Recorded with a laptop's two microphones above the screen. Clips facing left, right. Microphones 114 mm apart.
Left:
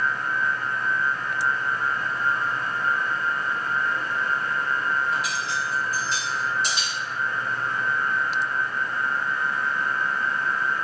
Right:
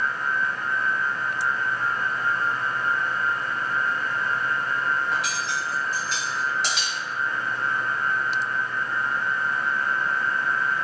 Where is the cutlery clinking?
85° right, 1.2 m.